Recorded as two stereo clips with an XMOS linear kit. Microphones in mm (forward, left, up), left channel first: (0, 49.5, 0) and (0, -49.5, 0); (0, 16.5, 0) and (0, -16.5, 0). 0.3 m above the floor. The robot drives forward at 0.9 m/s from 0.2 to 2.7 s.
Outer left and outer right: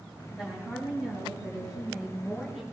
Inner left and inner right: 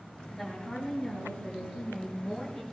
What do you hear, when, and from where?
0.3 s a woman speaking: centre (ahead or behind), 6.5 m; by 2.6 s 5° right (ahead or behind), 4.5 m